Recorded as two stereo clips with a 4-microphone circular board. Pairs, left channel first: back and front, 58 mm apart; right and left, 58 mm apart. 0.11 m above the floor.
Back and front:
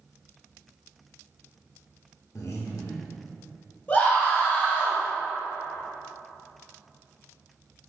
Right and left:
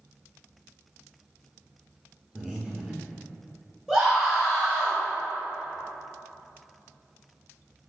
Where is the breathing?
170° left, 0.6 m.